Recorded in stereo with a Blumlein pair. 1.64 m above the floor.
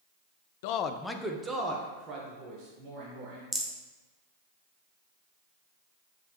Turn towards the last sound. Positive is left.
turn(degrees=-5)